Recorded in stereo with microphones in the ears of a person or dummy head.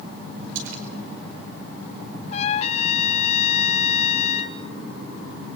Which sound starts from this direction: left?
A trumpet, at 2.3 s.